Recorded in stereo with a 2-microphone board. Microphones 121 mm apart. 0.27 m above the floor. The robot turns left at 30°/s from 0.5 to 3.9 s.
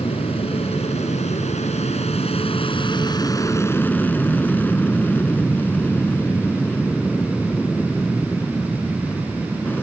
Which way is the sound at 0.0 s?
120° left.